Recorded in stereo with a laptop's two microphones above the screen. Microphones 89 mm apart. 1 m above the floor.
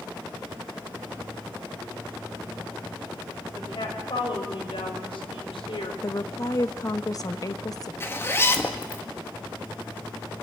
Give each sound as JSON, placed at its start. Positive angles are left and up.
{"t": 3.5, "sound": "a woman speaking", "side_deg": 70, "distance_m": 5.5}
{"t": 6.0, "sound": "a woman speaking", "side_deg": 45, "distance_m": 0.7}
{"t": 8.0, "sound": "a zipper", "side_deg": 25, "distance_m": 1.9}